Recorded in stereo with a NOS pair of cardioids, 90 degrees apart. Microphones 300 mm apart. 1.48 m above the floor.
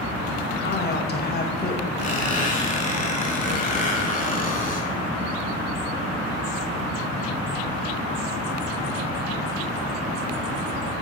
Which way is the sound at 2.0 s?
30° left.